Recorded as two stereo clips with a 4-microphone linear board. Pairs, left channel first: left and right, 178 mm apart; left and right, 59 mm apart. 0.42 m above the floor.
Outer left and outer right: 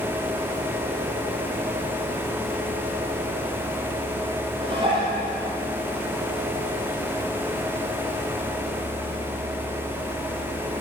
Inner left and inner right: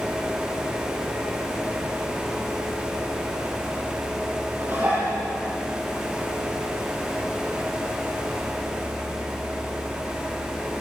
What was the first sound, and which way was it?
Dishes clattering, 30° right (ahead or behind).